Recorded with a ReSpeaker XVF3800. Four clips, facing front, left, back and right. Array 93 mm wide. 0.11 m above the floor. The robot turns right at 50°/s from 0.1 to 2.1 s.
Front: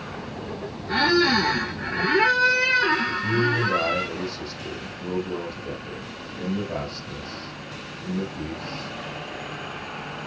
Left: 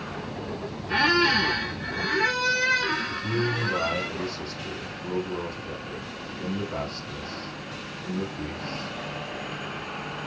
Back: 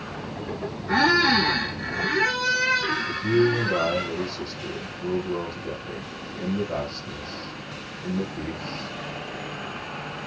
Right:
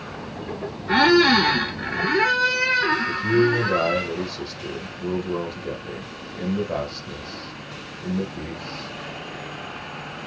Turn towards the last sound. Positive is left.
turn(degrees=-90)